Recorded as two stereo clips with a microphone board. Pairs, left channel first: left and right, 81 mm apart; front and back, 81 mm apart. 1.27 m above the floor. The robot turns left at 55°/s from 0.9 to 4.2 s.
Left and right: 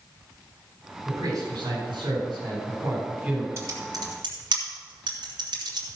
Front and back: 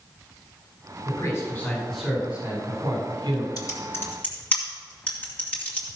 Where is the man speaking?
45° right, 4.5 m; by 3.5 s 175° right, 4.5 m.